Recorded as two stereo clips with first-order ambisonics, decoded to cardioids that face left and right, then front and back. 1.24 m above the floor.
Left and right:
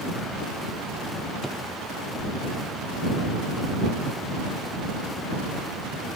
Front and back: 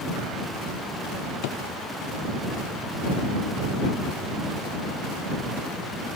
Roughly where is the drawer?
Ahead.